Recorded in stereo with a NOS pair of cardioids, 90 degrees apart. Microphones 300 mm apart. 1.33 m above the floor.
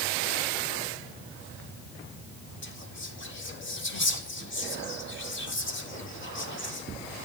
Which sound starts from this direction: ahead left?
Whispering, at 2.6 s.